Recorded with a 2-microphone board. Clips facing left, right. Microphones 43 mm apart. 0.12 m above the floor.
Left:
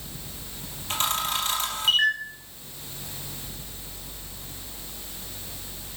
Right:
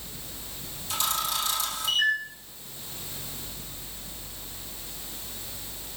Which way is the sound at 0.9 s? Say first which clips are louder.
Left 2 dB; 50° left (ahead or behind).